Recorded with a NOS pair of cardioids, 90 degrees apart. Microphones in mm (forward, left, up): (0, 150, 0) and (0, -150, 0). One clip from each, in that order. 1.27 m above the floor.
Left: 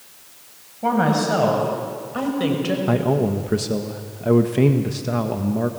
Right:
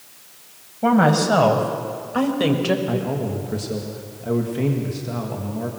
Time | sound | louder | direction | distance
0.8 | a woman speaking | right 2 dB | 30° right | 6.5 m
2.9 | a man speaking | left 5 dB | 45° left | 1.8 m